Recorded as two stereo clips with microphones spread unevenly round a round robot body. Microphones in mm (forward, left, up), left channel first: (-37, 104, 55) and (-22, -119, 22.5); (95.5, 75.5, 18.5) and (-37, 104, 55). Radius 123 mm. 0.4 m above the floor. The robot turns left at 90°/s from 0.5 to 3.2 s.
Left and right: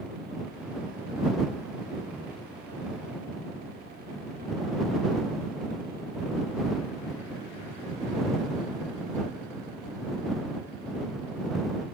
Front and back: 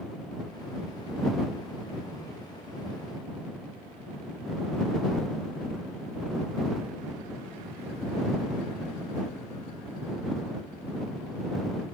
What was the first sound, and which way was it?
Only background noise.